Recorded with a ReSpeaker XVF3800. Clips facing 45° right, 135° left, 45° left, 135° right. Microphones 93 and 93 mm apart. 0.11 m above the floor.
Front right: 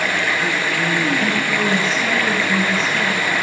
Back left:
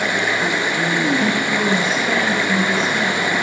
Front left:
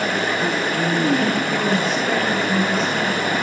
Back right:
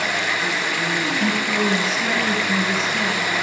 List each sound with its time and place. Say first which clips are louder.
0.0 s running water: back left 1 dB, front left 3 dB; 70° left, 0.7 m
1.2 s a woman speaking: back left 1 dB, front left 1 dB; 130° left, 2 m